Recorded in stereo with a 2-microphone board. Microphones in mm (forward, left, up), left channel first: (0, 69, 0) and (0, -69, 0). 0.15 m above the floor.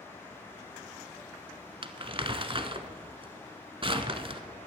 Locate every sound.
1.8 s crumpling: 40° right (ahead or behind), 0.7 m